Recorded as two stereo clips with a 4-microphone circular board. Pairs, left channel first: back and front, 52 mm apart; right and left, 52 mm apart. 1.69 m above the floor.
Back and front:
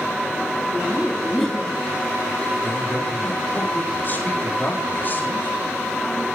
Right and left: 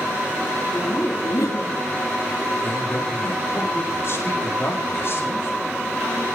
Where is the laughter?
100° right, 4 m.